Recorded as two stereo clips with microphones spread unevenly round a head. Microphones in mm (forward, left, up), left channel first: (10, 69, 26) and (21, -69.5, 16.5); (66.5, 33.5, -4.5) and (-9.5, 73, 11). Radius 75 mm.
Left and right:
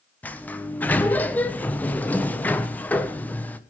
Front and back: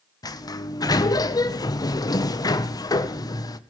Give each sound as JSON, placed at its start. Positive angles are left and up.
{"t": 0.2, "sound": "a sliding door", "azimuth_deg": 15, "distance_m": 1.3}